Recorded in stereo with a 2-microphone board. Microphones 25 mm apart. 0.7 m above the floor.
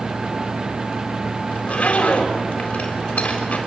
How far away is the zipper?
About 4 m.